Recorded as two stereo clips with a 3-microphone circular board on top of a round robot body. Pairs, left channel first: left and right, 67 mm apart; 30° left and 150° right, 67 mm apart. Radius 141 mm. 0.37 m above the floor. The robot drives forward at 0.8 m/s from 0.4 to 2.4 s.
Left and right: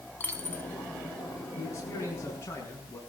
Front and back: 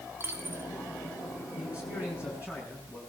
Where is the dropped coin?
155° left, 2 m.